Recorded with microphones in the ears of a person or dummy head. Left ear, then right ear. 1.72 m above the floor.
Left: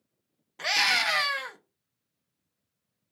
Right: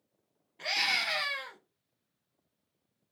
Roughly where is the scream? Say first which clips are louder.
Left 5 dB; left.